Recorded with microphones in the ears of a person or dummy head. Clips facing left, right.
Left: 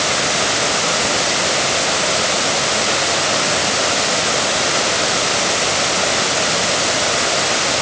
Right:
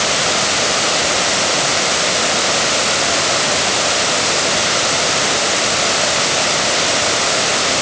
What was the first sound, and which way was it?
Only background noise.